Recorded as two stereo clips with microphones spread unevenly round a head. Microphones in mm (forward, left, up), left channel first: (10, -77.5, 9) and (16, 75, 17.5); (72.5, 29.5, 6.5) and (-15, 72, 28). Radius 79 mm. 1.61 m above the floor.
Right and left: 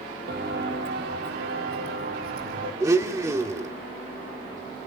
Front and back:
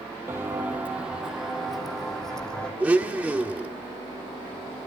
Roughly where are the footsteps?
Left.